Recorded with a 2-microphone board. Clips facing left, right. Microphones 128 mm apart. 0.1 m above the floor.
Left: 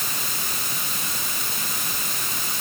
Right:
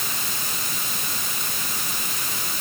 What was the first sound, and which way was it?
Only background noise.